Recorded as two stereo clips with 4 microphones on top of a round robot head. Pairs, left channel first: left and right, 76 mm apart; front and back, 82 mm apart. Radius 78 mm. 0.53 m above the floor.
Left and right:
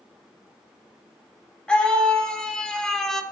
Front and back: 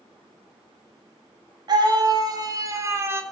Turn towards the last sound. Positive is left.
turn(degrees=170)